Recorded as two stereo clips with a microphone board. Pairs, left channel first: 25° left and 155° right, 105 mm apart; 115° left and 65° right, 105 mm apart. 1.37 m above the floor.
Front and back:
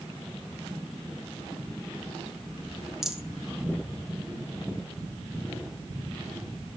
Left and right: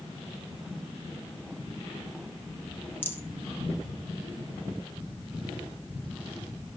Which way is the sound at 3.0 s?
125° left.